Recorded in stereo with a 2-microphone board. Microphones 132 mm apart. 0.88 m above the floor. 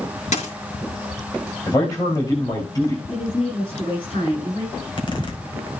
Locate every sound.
0.3 s a dropped coin: 65° left (ahead or behind), 6 m
1.7 s a man speaking: 30° left (ahead or behind), 3.5 m
3.1 s a woman speaking: 45° left (ahead or behind), 9 m
4.7 s a zipper: 40° left (ahead or behind), 4.5 m